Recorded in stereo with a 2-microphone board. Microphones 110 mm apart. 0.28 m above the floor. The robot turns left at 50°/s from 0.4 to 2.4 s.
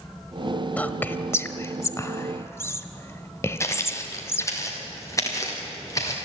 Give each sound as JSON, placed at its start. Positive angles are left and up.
{"t": 0.8, "sound": "whispering", "side_deg": 15, "distance_m": 1.0}
{"t": 3.6, "sound": "footsteps", "side_deg": 25, "distance_m": 3.0}